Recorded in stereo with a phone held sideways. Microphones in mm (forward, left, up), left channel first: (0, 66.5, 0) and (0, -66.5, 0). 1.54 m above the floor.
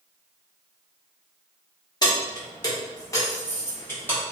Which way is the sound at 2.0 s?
30° left (ahead or behind).